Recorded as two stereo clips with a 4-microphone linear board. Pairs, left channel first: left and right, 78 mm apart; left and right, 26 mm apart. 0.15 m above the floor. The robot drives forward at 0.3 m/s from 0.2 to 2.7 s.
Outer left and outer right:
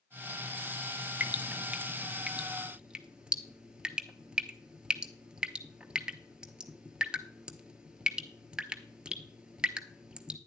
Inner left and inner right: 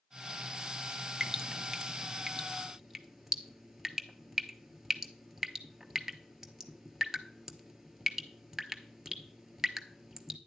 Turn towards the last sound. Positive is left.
turn(degrees=-15)  # may be behind; listen again after turning